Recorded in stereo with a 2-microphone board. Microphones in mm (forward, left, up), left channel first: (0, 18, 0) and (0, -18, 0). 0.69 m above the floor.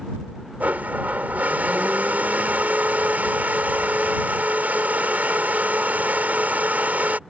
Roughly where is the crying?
No crying in this recording.